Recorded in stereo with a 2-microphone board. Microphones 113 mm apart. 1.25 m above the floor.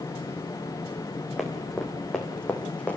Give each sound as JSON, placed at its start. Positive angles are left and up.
{"t": 1.4, "sound": "running footsteps", "side_deg": 0, "distance_m": 4.5}